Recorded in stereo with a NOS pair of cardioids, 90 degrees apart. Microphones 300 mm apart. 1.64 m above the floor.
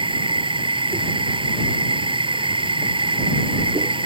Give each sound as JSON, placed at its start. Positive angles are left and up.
{"t": 0.0, "sound": "a machine running", "azimuth_deg": -15}